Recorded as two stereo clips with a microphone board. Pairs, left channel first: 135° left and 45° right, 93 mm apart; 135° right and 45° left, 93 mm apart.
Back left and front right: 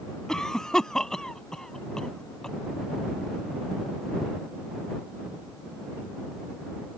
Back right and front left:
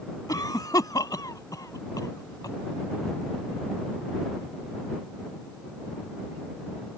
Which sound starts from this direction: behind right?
A cough, at 0.3 s.